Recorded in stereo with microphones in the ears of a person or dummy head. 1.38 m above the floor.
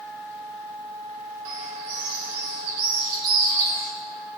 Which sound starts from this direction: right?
A bird, at 1.4 s.